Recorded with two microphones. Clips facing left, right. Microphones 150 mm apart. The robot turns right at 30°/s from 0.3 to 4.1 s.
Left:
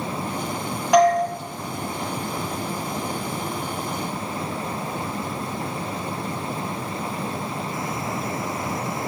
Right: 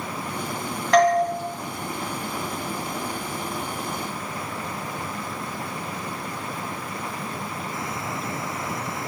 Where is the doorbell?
10° left (ahead or behind), 2 m; by 1.2 s 5° left (ahead or behind), 2 m.